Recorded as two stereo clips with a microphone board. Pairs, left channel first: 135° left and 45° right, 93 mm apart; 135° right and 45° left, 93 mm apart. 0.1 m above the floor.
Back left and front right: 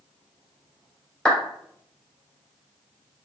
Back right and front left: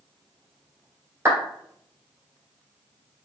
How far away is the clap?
About 1.5 m.